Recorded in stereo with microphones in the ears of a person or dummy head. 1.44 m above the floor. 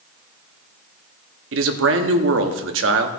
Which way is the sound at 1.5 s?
70° right (ahead or behind).